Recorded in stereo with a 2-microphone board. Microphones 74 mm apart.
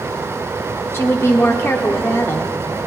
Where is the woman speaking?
35° left (ahead or behind), 0.9 m.